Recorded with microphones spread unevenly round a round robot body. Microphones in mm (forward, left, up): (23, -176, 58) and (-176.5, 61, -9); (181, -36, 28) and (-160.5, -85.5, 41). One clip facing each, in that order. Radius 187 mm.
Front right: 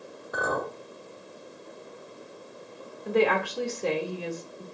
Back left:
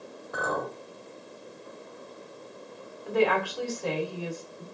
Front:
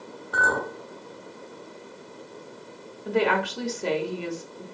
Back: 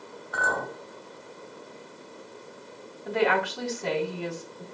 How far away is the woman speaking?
About 1.1 m.